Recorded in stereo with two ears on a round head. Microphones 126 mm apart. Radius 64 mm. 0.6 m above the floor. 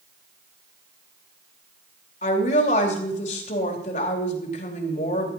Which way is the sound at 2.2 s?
55° left (ahead or behind).